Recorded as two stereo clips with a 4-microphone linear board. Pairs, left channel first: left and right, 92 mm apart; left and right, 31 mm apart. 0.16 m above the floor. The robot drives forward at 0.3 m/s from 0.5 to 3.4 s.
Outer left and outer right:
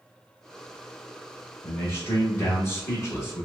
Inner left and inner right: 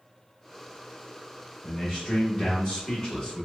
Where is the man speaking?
25° left (ahead or behind), 1.2 m; by 3.5 s 30° left (ahead or behind), 1.2 m.